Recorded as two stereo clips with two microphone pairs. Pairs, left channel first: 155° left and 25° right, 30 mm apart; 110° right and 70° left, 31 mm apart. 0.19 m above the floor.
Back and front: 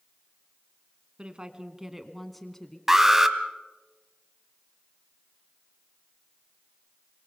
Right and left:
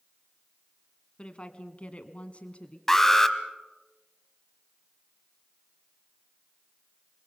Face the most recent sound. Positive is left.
turn(degrees=-80)